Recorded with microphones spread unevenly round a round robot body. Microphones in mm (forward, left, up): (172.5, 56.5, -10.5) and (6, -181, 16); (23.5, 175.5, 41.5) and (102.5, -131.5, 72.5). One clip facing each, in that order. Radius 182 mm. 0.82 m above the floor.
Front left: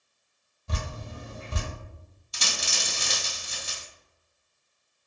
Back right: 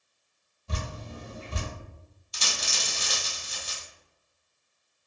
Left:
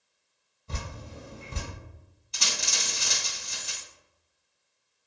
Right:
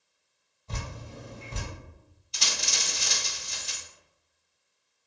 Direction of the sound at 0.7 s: 35° left.